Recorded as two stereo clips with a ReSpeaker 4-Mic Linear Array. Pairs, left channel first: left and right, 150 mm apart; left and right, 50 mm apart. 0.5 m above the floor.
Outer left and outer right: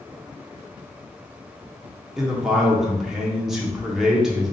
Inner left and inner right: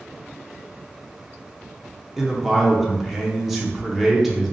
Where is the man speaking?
Centre (ahead or behind), 0.7 m.